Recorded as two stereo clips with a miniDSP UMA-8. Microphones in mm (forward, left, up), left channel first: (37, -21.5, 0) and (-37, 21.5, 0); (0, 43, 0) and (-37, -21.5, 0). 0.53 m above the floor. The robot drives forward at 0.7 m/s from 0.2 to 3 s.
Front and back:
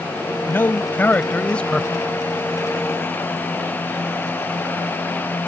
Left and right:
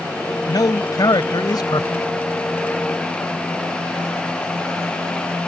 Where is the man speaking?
35° left; by 1.9 s 50° left.